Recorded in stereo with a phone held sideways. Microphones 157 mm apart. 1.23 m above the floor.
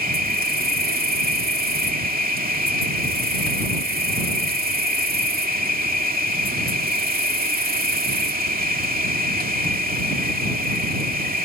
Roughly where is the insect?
Right.